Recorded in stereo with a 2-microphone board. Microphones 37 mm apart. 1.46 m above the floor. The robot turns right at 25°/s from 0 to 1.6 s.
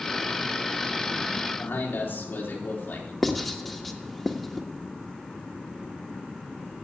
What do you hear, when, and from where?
1.6 s a man speaking: 60° left (ahead or behind), 4 m
3.2 s writing: centre (ahead or behind), 1.3 m